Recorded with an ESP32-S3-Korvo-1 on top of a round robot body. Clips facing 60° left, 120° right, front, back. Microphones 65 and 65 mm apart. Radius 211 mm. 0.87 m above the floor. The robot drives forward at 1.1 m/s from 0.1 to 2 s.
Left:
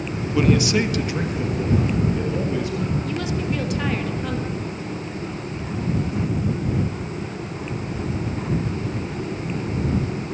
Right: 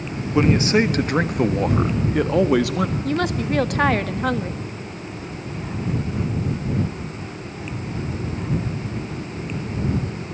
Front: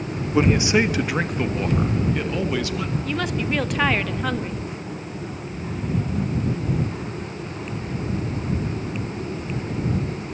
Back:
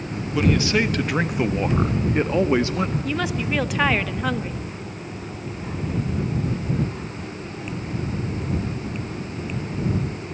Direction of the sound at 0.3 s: 60° right.